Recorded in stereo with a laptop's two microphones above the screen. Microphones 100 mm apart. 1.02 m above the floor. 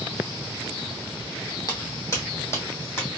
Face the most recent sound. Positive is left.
turn(degrees=20)  # may be behind; listen again after turning